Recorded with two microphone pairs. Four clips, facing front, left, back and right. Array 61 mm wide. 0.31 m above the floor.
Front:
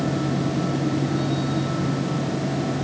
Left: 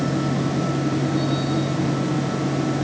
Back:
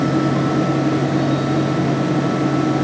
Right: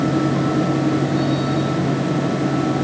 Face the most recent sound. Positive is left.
No sound to turn to.